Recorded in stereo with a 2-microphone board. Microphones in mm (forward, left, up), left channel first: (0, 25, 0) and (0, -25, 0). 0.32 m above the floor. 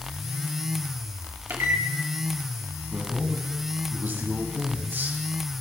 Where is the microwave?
50° right (ahead or behind), 1.9 m.